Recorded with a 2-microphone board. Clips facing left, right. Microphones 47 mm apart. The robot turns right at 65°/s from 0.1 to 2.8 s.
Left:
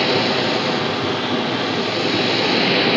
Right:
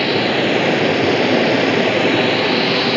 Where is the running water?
165° right, 0.9 m; by 3.0 s 10° left, 0.9 m.